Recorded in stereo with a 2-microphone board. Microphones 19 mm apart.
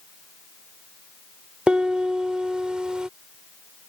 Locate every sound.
1.7 s a piano: 55° right (ahead or behind)